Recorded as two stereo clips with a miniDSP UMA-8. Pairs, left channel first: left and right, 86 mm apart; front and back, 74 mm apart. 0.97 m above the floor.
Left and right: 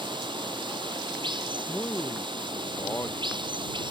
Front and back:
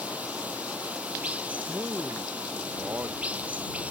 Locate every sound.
0.0 s running water: 110° right
1.7 s a man speaking: 135° left